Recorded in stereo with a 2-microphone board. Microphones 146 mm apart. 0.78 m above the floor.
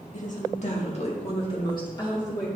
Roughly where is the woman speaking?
Left.